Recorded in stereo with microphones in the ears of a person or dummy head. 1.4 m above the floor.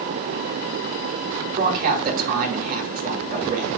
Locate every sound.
1.6 s a man speaking: 50° right (ahead or behind), 2.5 m